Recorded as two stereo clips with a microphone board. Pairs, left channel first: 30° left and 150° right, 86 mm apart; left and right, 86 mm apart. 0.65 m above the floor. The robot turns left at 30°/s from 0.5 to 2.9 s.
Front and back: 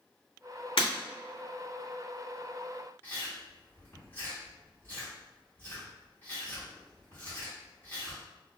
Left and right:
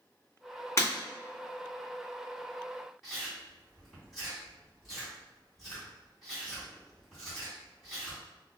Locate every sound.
0.8 s breaking glass: 35° left, 1.6 m; by 0.9 s 30° left, 1.6 m
3.0 s chewing: straight ahead, 1.3 m